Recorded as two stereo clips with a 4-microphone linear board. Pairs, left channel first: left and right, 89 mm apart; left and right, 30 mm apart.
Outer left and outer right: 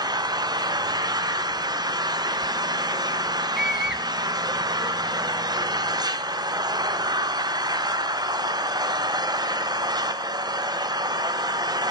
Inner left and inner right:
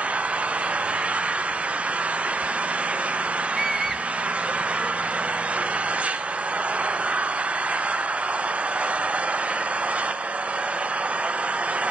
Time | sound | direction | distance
0.0 | an engine running | 50° right (ahead or behind) | 0.8 m
3.5 | a scream | 5° right (ahead or behind) | 1.5 m